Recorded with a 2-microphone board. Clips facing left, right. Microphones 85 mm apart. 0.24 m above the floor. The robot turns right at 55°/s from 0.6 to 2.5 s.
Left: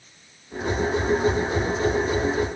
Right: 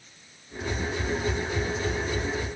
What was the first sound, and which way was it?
Only background noise.